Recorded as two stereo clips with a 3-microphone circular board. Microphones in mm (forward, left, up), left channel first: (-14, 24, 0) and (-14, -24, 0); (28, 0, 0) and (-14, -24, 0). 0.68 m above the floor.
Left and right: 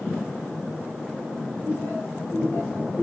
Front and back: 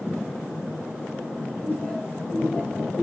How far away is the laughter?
About 5.5 m.